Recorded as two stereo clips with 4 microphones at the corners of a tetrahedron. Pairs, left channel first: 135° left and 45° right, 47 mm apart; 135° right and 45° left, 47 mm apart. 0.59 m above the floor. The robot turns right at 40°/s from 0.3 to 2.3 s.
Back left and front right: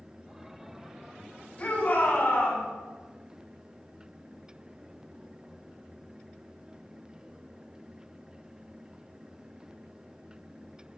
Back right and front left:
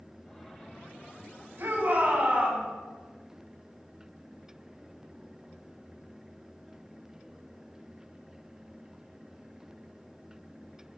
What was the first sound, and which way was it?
A shout, 75° left.